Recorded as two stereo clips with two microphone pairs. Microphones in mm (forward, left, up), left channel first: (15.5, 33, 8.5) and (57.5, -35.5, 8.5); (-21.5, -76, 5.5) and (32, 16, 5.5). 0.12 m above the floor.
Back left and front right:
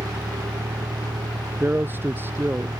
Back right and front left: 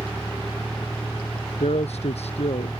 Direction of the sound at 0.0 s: 40° right.